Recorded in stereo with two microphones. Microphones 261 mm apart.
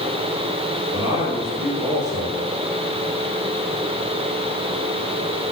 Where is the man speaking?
45° right (ahead or behind), 3.5 m.